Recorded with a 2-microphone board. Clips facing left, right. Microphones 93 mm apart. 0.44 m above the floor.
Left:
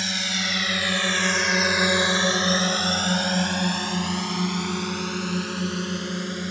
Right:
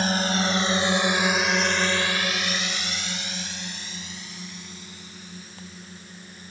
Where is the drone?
40° right (ahead or behind); by 6.5 s 80° left.